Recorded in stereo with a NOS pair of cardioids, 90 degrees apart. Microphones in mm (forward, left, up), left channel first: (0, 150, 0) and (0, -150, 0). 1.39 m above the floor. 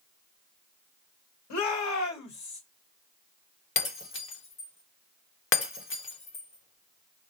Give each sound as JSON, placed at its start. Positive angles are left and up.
{"t": 1.5, "sound": "a shout", "azimuth_deg": 70, "distance_m": 1.9}
{"t": 3.8, "sound": "breaking glass", "azimuth_deg": 45, "distance_m": 1.4}